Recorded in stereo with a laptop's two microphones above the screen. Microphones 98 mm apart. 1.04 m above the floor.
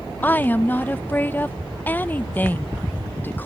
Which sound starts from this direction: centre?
A woman speaking, at 0.2 s.